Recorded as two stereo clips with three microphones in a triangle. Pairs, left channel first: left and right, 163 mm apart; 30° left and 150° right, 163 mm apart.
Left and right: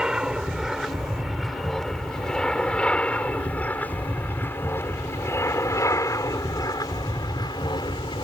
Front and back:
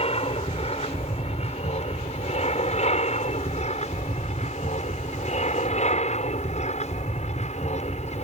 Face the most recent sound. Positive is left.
turn(degrees=45)